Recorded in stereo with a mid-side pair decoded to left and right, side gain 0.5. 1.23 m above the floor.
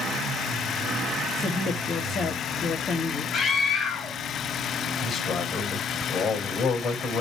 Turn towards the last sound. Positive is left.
turn(degrees=40)